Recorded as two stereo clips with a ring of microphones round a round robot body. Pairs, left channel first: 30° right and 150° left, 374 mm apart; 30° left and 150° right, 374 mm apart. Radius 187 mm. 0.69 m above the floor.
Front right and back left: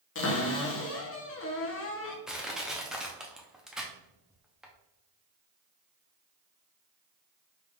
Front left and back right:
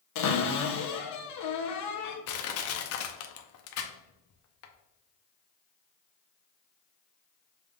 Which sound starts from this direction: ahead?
A cupboard door, at 0.1 s.